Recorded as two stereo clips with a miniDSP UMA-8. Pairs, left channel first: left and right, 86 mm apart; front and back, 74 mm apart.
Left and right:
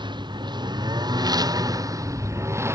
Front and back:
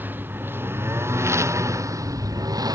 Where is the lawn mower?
115° right; by 2.8 s 150° right.